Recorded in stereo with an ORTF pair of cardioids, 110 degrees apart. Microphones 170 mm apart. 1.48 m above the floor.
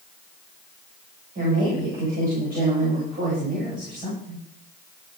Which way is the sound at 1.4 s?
55° right.